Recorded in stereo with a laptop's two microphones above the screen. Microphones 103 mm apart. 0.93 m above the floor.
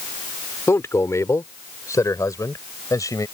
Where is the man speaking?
25° left (ahead or behind); by 3.2 s 35° left (ahead or behind).